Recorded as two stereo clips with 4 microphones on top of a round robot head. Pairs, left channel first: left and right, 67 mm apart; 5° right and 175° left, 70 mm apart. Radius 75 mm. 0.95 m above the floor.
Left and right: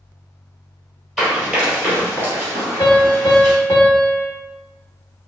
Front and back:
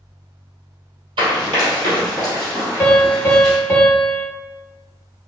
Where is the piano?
45° left, 0.5 m.